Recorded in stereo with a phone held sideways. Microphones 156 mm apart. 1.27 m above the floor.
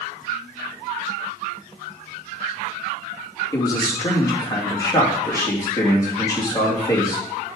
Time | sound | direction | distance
3.5 | a man speaking | 25° left (ahead or behind) | 2.5 m